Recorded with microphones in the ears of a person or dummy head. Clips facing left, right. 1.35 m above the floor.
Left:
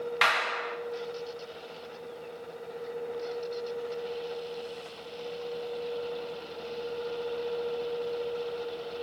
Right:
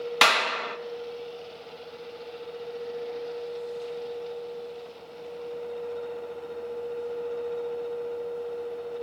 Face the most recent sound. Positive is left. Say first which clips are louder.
# right 5 dB
turn(degrees=-55)  # may be behind; listen again after turning